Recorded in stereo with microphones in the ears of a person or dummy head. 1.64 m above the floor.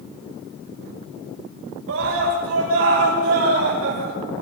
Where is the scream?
80° right, 8.5 m; by 4.1 s 90° right, 7 m.